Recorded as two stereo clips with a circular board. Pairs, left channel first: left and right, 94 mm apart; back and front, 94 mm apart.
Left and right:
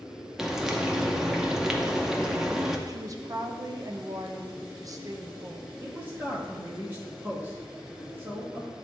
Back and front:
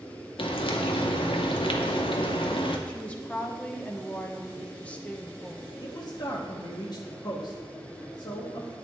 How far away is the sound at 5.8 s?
About 1.1 m.